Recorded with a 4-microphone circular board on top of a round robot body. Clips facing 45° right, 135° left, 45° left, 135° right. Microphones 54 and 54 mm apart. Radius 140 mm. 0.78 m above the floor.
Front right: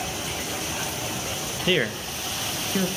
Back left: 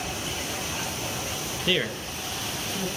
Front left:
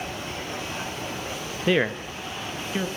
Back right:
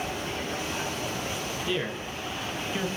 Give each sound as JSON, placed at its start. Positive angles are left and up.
{"t": 1.7, "sound": "a man speaking", "azimuth_deg": 30, "distance_m": 0.8}